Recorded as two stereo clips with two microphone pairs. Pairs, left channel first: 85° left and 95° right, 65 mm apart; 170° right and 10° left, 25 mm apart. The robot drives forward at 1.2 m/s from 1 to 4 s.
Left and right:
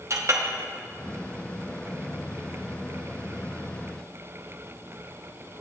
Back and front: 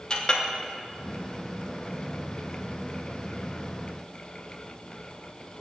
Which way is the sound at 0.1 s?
120° right.